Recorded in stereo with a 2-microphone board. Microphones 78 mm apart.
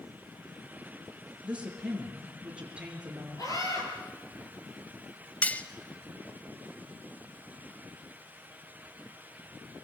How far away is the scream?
About 8 m.